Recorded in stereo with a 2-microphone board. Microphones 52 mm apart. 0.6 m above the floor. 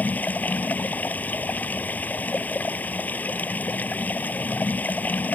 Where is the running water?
35° left (ahead or behind).